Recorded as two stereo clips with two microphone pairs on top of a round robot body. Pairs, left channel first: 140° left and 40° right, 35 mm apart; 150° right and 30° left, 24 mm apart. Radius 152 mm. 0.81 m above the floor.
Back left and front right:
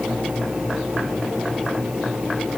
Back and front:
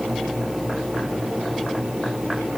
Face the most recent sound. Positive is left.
No sound to turn to.